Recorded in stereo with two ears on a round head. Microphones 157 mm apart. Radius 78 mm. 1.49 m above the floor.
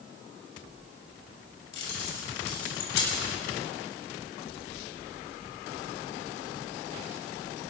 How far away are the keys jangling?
About 6.5 m.